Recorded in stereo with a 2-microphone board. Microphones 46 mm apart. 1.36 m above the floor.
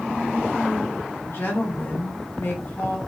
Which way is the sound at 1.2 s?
60° left (ahead or behind).